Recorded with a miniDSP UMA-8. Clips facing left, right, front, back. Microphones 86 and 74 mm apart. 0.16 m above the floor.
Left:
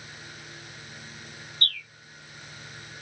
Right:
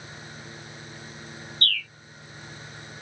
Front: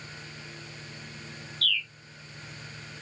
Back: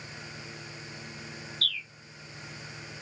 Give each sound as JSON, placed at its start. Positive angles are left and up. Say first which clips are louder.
{"t": 1.6, "sound": "a bird", "louder": "right 4 dB, front 6 dB", "azimuth_deg": 145}